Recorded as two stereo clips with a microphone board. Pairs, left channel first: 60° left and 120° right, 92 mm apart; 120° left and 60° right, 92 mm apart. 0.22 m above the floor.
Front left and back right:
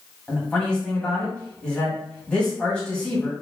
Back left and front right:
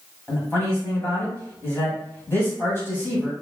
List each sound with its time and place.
0.3 s a man speaking: 125° left, 1.1 m